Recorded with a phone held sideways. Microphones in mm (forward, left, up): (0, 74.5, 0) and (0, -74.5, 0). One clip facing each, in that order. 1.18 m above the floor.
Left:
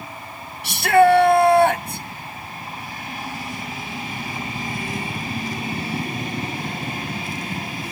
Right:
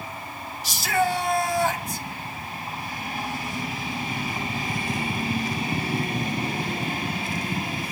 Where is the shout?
65° left (ahead or behind), 1.4 m.